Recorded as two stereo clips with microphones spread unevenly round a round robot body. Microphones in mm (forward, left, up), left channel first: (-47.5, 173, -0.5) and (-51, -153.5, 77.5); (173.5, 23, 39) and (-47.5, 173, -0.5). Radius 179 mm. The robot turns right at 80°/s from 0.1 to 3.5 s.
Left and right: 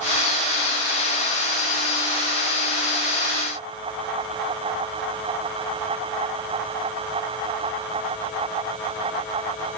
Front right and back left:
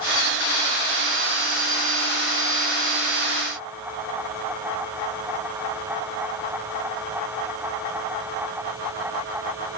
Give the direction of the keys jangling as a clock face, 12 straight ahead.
I don't hear keys jangling.